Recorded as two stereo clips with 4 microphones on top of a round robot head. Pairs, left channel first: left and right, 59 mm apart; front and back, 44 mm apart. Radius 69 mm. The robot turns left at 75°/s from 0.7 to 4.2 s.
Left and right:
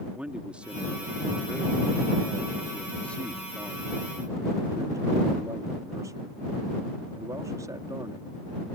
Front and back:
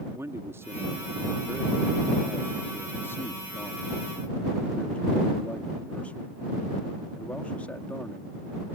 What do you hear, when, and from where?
0.1 s a man speaking: 160° right; by 8.8 s 65° right